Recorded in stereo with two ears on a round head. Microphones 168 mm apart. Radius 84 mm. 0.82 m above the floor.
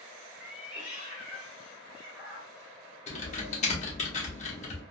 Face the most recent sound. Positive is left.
turn(degrees=40)  # may be behind; listen again after turning